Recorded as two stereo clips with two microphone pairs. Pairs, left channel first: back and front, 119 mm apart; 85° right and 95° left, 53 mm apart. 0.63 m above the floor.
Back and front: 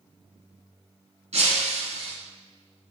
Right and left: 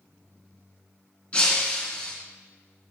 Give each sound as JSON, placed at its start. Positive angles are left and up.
{"t": 1.3, "sound": "breaking glass", "azimuth_deg": -20, "distance_m": 2.0}